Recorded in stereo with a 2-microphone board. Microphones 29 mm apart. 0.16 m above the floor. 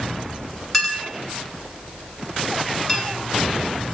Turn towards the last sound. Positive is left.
turn(degrees=10)  # may be behind; listen again after turning